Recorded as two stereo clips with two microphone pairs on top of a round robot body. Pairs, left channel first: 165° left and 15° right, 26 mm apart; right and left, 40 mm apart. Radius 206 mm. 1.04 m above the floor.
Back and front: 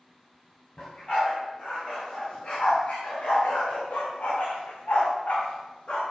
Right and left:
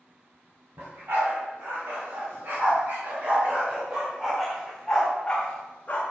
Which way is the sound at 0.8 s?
110° left.